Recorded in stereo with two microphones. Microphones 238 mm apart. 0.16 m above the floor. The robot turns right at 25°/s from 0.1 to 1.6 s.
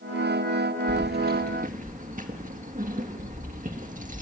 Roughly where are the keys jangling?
Right.